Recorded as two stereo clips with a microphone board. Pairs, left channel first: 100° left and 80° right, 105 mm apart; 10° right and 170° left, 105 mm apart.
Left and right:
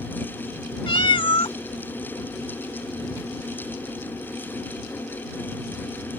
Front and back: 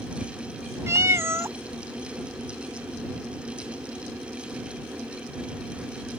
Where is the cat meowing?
110° left.